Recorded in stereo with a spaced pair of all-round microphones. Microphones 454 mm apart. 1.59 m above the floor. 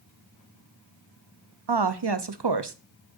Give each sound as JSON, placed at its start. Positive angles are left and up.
{"t": 1.7, "sound": "a woman speaking", "side_deg": -65, "distance_m": 0.7}